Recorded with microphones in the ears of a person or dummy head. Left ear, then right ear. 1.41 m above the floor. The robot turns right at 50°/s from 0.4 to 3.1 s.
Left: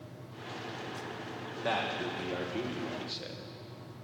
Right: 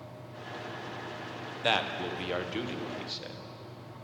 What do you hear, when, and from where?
1.6 s a man speaking: 80° right, 0.7 m; by 3.4 s 10° right, 0.7 m